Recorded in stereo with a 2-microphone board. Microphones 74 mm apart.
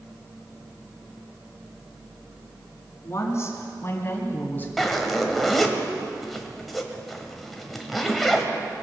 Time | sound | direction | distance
3.0 | a woman speaking | 40° left (ahead or behind) | 3 m
4.8 | a zipper | centre (ahead or behind) | 1.4 m